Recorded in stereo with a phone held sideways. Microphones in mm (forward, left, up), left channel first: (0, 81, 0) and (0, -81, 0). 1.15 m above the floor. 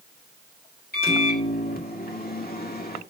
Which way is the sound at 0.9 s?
65° left (ahead or behind).